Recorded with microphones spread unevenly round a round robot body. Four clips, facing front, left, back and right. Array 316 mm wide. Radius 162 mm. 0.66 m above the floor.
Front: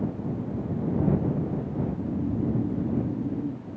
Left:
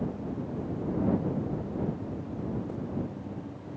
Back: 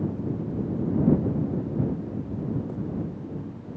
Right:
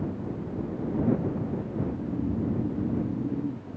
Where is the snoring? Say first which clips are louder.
Right 4 dB, front 1 dB; 35° right.